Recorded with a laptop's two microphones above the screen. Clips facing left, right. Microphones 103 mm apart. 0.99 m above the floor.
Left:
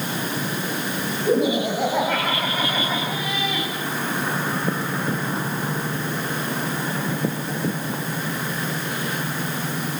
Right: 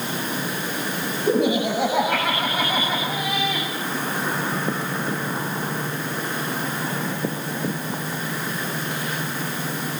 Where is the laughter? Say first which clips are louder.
Even; centre (ahead or behind), 5.5 m; by 3.7 s 15° right (ahead or behind), 8 m.